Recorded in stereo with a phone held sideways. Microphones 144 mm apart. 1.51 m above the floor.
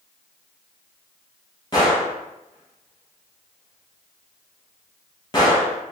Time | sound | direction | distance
1.7 | a gunshot | 30° left (ahead or behind) | 1.3 m